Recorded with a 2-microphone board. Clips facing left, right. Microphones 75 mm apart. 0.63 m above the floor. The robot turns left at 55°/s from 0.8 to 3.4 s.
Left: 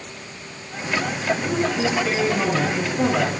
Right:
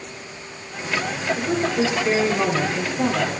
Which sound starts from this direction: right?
A woman speaking, at 1.4 s.